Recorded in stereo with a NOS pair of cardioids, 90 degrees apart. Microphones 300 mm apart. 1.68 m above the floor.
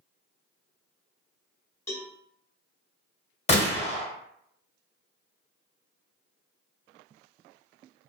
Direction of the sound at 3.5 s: 25° left.